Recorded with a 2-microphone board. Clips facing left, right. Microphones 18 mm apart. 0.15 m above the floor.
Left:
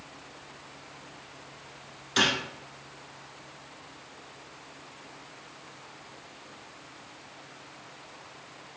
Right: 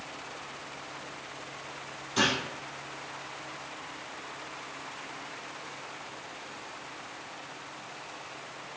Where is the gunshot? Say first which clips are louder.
Left 2 dB; 50° left (ahead or behind), 1.1 m.